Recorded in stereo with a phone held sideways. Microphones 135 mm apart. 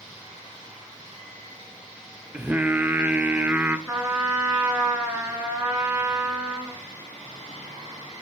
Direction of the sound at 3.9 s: 10° right (ahead or behind).